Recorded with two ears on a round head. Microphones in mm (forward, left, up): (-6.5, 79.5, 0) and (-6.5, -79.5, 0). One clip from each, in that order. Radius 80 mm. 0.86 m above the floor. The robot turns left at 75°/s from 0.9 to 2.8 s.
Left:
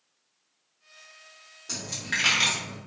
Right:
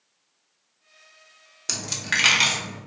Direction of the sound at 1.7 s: 60° right (ahead or behind).